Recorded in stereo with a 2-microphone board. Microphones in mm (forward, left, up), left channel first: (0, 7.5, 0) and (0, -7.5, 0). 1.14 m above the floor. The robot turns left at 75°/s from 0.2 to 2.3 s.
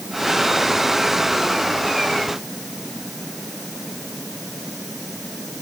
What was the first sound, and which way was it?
Only background noise.